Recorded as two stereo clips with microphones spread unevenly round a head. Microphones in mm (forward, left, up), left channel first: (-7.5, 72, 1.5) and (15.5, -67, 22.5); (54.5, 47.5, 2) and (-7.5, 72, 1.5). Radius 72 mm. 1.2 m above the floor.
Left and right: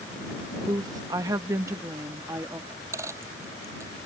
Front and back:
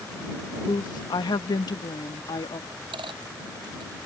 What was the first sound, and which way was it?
A woman speaking, 15° right.